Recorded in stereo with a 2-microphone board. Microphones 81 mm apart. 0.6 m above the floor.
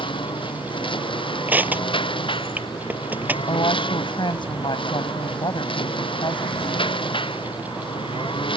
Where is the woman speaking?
80° left.